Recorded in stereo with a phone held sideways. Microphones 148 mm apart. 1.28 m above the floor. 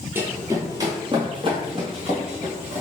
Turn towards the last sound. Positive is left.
turn(degrees=-50)  # may be behind; listen again after turning